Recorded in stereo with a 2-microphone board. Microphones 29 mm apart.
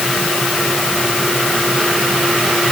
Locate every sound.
Only background noise.